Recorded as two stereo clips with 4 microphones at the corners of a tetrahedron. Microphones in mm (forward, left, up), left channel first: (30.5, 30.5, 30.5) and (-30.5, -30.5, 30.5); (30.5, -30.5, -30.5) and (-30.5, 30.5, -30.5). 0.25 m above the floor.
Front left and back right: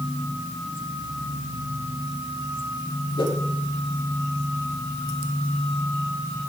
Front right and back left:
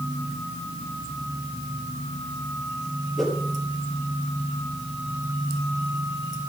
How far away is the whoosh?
About 5.5 m.